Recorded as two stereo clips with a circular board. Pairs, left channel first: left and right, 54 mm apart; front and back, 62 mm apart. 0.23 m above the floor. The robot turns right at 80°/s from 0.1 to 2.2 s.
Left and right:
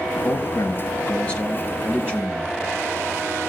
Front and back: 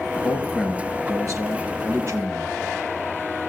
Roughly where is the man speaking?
Left.